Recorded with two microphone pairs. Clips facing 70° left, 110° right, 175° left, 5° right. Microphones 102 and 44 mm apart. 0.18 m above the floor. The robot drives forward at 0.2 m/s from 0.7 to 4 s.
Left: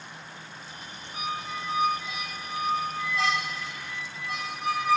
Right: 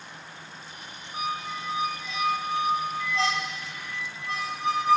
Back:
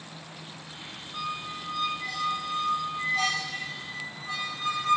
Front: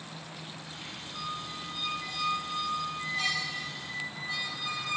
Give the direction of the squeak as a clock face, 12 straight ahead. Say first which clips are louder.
Right 2 dB, back 4 dB; 6 o'clock.